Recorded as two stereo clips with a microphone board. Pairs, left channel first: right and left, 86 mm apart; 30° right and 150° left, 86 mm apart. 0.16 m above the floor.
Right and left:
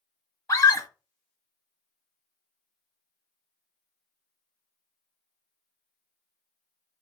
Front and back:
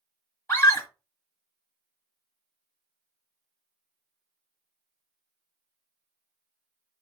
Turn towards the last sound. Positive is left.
turn(degrees=-75)